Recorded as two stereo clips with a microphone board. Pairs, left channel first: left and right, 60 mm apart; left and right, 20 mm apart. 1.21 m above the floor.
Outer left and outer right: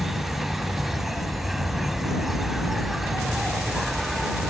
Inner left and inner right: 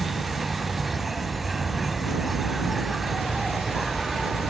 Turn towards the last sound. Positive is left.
turn(degrees=-5)  # may be behind; listen again after turning